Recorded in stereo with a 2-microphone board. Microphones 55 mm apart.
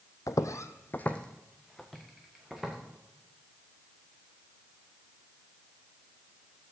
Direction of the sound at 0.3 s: 70° left (ahead or behind).